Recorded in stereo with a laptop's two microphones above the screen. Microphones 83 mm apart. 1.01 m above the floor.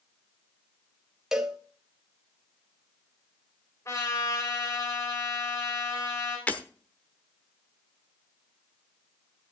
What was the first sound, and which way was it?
A cowbell, 5° right (ahead or behind).